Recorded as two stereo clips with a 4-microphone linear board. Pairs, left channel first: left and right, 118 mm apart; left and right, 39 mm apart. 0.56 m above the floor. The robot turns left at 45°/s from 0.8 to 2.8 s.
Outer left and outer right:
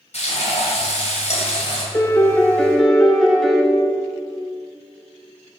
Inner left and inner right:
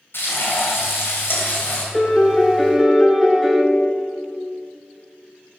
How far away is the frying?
About 2.5 m.